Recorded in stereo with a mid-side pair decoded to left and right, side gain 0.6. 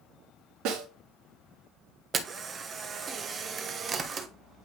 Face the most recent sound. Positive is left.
turn(degrees=-35)